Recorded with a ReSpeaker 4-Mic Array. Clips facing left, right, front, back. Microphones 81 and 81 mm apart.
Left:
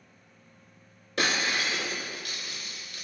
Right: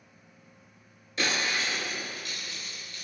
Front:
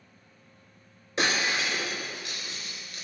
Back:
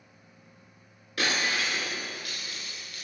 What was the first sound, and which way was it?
Breaking glass, 65° left.